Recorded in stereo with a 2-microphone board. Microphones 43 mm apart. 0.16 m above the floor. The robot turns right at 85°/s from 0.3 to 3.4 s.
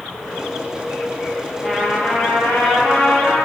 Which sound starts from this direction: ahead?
A trumpet, at 1.6 s.